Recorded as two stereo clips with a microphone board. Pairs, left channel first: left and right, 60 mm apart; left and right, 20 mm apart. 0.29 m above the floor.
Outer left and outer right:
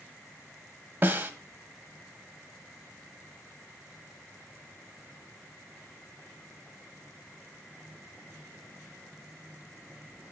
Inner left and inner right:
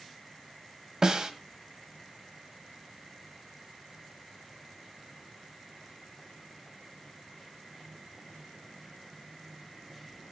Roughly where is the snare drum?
Right.